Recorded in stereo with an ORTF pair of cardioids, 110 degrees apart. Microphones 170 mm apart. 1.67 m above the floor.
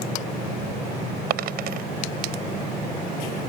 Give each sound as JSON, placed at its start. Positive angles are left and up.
{"t": 1.3, "sound": "a dropped coin", "azimuth_deg": -70}